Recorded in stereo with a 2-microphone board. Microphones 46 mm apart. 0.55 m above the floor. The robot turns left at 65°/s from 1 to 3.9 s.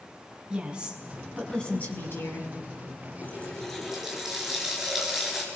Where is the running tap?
40° left, 5 m; by 5.5 s 5° right, 5 m.